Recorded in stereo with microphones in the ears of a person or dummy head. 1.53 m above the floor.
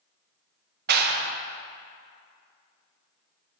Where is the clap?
50° right (ahead or behind), 0.8 m.